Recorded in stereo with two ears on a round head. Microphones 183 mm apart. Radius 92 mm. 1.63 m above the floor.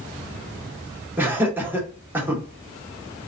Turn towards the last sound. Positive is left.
turn(degrees=-10)  # may be behind; listen again after turning